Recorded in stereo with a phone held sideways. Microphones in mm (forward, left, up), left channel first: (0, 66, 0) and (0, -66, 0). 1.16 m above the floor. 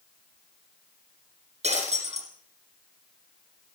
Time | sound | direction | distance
1.6 | breaking glass | 60° right (ahead or behind) | 6.5 m